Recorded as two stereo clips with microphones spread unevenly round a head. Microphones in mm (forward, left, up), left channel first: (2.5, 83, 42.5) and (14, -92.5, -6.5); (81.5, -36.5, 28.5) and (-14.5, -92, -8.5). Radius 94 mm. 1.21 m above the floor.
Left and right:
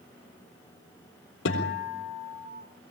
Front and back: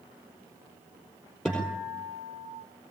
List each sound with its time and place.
1.4 s a guitar: 120° left, 4 m